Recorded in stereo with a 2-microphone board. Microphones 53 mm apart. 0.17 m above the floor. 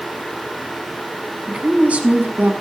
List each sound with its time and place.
1.5 s a woman speaking: 15° right (ahead or behind), 1.2 m; by 2.5 s 35° right (ahead or behind), 1.2 m